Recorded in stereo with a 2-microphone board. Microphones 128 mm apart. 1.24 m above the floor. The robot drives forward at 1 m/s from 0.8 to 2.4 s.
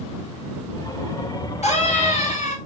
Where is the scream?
60° left (ahead or behind), 4 m; by 2.6 s 70° left (ahead or behind), 3.5 m.